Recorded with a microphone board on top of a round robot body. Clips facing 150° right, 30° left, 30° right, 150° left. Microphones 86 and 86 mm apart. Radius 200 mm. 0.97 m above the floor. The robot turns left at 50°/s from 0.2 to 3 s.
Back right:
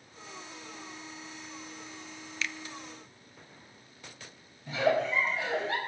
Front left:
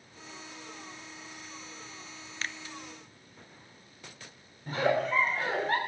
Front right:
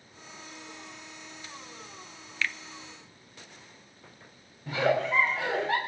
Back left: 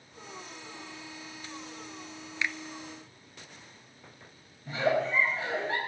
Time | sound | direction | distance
2.4 | a finger snap | 80° left | 0.5 m
4.7 | a giggle | 15° right | 3 m